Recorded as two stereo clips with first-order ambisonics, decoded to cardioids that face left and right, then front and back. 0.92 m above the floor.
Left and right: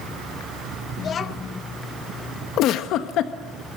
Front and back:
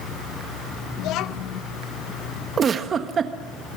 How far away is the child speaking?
About 0.7 m.